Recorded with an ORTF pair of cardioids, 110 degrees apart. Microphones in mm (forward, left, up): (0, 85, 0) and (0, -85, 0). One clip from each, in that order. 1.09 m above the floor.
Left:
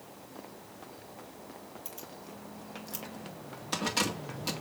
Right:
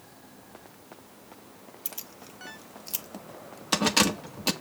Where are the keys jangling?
45° right, 1.5 m.